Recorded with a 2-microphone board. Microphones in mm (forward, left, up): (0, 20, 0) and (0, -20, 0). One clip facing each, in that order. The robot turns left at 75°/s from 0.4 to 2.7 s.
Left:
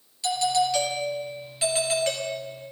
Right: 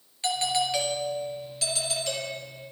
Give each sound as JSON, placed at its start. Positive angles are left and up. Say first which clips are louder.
{"t": 0.2, "sound": "a doorbell", "louder": "left 3 dB", "azimuth_deg": -130, "distance_m": 3.5}